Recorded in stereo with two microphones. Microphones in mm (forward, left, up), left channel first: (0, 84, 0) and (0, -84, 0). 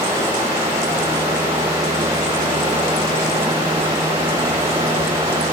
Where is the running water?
20° right (ahead or behind), 1.7 m.